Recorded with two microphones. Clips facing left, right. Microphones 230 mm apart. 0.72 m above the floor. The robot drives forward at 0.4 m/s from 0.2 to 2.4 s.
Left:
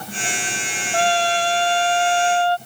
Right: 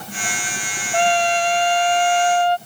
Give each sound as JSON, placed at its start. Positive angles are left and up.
{"t": 0.9, "sound": "a trumpet", "side_deg": -20}